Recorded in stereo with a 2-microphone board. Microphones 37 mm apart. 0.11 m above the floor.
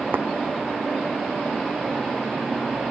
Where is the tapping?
60° right (ahead or behind).